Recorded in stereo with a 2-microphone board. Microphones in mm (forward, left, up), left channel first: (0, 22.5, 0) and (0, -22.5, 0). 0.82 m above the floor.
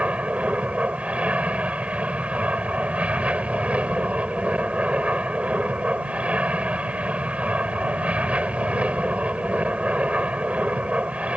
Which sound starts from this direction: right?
An aircraft, at 0.0 s.